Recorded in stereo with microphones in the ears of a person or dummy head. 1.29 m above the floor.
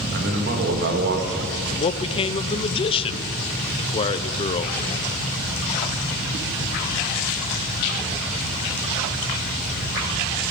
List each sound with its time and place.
0.1 s a man speaking: 55° right (ahead or behind), 1.7 m
1.7 s a man speaking: 30° left (ahead or behind), 0.6 m